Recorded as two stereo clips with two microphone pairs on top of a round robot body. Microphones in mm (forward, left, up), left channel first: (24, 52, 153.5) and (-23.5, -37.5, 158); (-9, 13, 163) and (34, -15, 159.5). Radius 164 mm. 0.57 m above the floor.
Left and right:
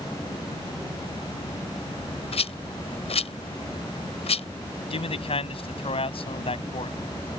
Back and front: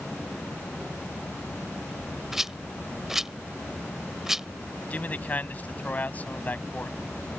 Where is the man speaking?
85° left.